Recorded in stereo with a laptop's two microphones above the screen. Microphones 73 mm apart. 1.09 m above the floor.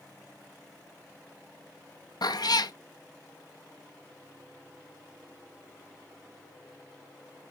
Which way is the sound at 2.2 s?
65° left (ahead or behind).